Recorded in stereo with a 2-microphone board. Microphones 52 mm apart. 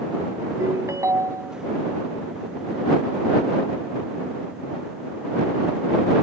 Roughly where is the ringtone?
Right.